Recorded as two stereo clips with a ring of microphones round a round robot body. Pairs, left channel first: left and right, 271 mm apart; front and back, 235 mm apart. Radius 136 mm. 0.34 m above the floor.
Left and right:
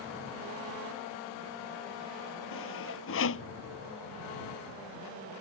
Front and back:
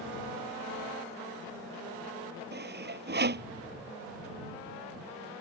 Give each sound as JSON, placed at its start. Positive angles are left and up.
{"t": 2.5, "sound": "sawing", "azimuth_deg": 135}